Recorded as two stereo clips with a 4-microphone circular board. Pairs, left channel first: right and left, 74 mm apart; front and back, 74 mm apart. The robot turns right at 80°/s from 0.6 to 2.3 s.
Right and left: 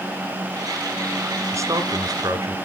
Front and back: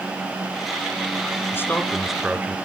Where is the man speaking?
50° left, 2.5 m; by 2.6 s 110° left, 2.5 m.